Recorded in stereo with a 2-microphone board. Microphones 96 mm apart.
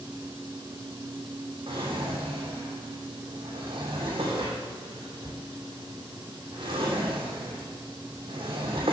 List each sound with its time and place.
1.7 s a drawer: 60° right (ahead or behind), 2.5 m